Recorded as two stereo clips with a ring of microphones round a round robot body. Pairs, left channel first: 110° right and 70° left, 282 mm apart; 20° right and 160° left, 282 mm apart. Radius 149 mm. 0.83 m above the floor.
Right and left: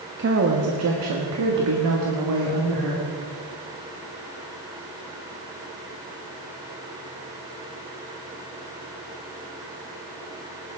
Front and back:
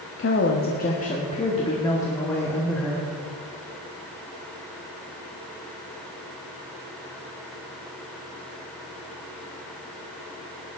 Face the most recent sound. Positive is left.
turn(degrees=65)